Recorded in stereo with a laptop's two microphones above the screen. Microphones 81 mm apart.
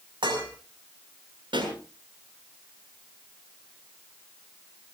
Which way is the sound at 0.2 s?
90° right.